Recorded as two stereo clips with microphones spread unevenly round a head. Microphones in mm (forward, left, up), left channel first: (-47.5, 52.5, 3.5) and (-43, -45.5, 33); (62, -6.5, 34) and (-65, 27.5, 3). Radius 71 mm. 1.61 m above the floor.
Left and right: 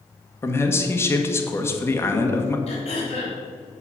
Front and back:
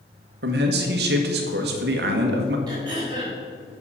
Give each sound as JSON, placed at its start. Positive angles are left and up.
{"t": 0.4, "sound": "a man speaking", "azimuth_deg": 160, "distance_m": 1.6}
{"t": 2.7, "sound": "throat clearing", "azimuth_deg": 105, "distance_m": 4.0}